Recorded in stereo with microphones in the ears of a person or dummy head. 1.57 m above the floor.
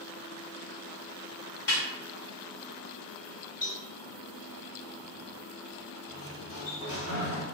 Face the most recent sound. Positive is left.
turn(degrees=70)  # may be behind; listen again after turning